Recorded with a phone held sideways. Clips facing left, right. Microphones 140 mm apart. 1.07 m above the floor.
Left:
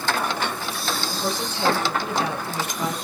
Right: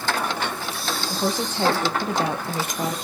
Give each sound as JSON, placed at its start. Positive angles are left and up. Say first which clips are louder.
{"t": 1.1, "sound": "a woman speaking", "louder": "right 2 dB", "side_deg": -45, "distance_m": 0.8}